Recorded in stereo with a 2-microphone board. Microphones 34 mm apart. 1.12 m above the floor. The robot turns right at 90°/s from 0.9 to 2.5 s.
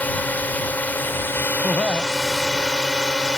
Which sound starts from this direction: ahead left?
A drone, at 0.0 s.